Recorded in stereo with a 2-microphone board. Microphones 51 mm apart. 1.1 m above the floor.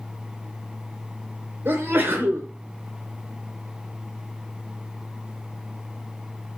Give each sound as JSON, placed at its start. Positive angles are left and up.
{"t": 1.6, "sound": "a sneeze", "side_deg": -45, "distance_m": 0.8}